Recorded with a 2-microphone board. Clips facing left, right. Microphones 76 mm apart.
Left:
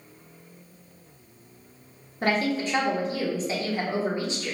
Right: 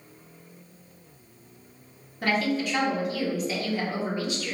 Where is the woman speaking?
30° left (ahead or behind), 0.9 m.